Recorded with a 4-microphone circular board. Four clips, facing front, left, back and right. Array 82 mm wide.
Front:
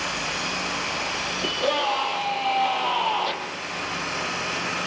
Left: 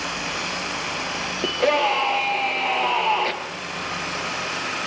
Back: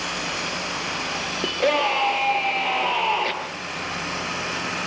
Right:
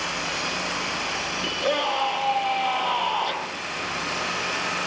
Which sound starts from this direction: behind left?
A scream, at 1.4 s.